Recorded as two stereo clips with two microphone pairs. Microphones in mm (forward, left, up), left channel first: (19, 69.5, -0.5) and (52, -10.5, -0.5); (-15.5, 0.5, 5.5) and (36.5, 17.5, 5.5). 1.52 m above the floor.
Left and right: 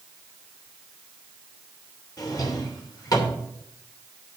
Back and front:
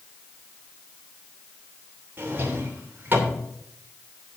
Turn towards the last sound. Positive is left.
turn(degrees=70)